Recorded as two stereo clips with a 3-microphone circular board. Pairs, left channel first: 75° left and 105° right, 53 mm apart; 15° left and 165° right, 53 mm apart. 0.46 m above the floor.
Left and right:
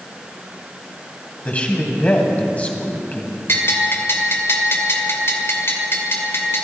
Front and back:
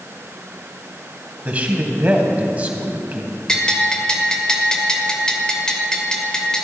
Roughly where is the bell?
Left.